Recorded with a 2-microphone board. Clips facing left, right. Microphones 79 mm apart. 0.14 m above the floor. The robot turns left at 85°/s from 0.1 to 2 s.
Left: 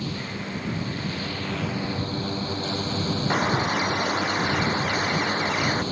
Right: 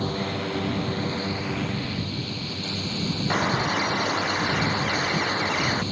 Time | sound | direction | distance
0.0 | a drone | 45° right (ahead or behind) | ?
3.3 | a bird | 10° left (ahead or behind) | ?